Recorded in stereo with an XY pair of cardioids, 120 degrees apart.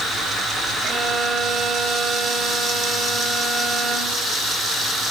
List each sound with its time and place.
0.8 s a violin: 40° right, 2 m